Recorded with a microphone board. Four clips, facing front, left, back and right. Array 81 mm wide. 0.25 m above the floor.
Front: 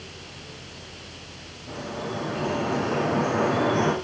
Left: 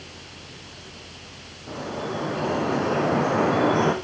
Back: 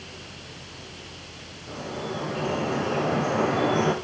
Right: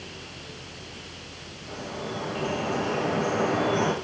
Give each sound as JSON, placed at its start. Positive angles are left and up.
{"t": 1.7, "sound": "dripping", "azimuth_deg": 90, "distance_m": 5.5}